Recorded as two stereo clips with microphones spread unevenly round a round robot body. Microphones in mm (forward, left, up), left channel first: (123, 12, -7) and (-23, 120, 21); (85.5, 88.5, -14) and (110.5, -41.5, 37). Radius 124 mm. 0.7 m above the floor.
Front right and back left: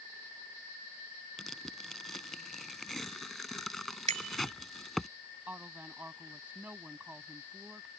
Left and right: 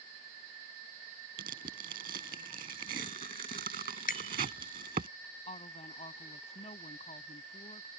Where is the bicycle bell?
90° left.